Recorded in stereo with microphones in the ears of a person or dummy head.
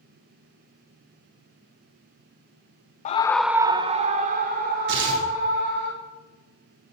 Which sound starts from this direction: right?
Tearing paper, at 4.9 s.